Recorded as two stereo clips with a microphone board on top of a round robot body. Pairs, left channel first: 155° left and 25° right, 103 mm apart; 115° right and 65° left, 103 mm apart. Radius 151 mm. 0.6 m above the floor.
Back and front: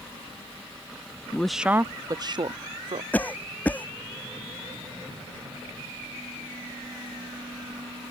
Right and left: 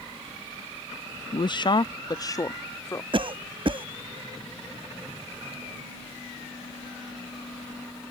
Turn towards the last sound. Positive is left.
turn(degrees=85)